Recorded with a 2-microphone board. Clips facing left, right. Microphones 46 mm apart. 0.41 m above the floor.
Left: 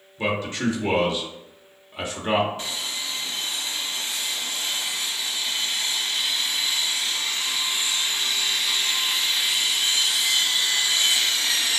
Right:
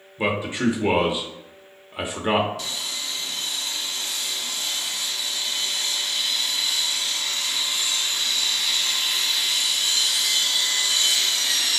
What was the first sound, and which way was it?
A man speaking, 20° right (ahead or behind).